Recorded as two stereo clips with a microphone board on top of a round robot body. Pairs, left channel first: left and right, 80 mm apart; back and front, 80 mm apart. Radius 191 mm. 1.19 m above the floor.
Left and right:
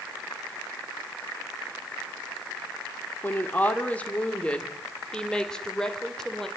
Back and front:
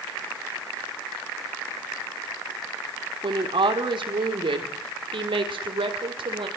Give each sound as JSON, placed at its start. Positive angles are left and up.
{"t": 3.2, "sound": "a woman speaking", "azimuth_deg": 20, "distance_m": 3.0}